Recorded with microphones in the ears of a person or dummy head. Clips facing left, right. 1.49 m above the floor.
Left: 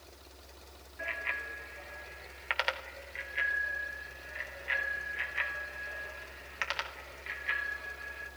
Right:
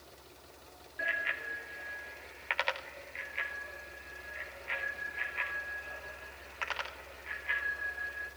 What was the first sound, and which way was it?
A bicycle bell, 20° right (ahead or behind).